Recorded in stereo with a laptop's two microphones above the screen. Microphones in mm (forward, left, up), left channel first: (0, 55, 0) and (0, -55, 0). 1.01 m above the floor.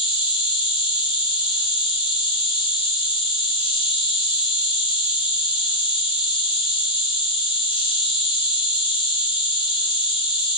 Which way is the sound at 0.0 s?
55° left (ahead or behind).